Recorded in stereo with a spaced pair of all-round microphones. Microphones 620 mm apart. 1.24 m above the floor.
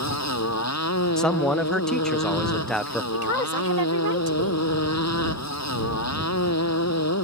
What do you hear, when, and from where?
0.0 s a motorcycle: 25° left (ahead or behind)
1.2 s a man speaking: centre (ahead or behind)
3.1 s a woman speaking: 85° right